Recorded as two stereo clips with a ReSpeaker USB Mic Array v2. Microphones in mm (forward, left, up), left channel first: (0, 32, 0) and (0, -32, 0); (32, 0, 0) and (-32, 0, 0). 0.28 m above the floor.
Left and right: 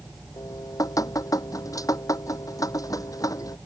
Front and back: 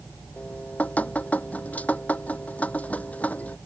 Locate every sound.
0.4 s dripping: 65° left